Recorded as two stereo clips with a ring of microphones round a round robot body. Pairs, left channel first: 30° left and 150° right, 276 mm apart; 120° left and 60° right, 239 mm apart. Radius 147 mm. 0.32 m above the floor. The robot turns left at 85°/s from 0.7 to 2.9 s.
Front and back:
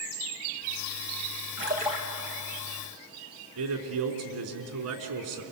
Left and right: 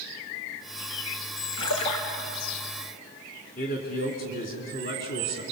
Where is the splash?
165° left, 4 m; by 2.0 s 125° left, 4 m.